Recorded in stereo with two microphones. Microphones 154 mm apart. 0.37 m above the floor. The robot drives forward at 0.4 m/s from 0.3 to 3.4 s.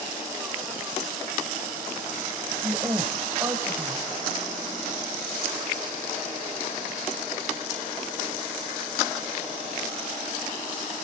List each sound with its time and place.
2.6 s a woman speaking: 25° right (ahead or behind), 2 m; by 4.1 s 20° right (ahead or behind), 2.5 m